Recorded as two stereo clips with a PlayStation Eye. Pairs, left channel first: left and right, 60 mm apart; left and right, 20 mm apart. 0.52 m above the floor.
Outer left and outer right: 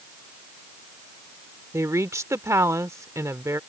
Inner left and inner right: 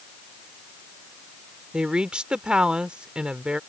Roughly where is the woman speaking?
Right.